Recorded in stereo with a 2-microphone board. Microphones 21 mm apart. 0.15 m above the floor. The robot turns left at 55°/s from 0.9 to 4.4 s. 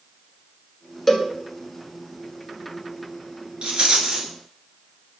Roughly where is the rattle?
Right.